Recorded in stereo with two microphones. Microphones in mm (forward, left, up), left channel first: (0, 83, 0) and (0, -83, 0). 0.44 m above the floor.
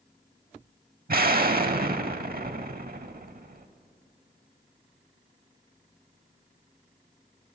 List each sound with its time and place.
1.1 s an explosion: 65° right (ahead or behind), 0.6 m